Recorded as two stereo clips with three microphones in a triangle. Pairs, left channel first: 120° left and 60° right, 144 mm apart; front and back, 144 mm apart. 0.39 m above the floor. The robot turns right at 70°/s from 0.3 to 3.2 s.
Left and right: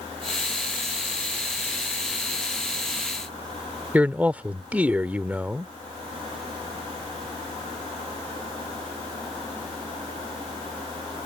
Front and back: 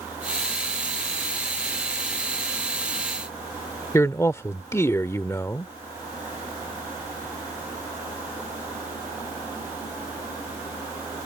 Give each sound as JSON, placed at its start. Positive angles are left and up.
{"t": 3.9, "sound": "a man speaking", "azimuth_deg": -5}